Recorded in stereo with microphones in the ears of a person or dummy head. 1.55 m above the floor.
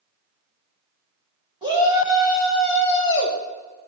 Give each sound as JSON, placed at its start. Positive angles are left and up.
{"t": 1.6, "sound": "a shout", "side_deg": -20, "distance_m": 3.0}